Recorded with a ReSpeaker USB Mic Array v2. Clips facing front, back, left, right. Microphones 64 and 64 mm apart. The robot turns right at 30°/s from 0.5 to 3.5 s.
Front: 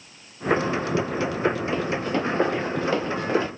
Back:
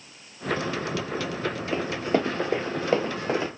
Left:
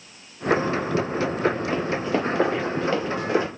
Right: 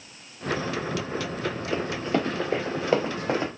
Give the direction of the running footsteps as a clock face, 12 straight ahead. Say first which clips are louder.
Even, left 2 dB; 8 o'clock.